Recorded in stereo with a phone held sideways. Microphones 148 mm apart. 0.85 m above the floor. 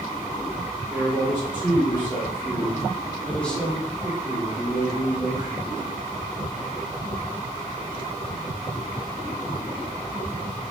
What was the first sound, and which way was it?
A man speaking, 35° left (ahead or behind).